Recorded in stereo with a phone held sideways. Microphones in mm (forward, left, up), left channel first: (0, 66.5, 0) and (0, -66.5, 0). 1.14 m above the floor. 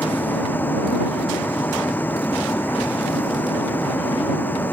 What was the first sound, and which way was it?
A vehicle, 15° left (ahead or behind).